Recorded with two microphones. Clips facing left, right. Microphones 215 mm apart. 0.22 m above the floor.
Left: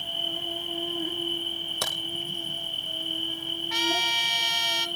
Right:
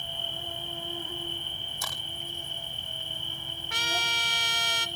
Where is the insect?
75° left (ahead or behind), 2.5 m.